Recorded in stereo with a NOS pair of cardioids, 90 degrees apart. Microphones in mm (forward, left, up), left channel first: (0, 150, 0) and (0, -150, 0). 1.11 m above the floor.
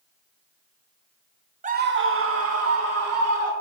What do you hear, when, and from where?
1.6 s a scream: 25° right, 0.7 m; by 3.5 s 60° right, 3 m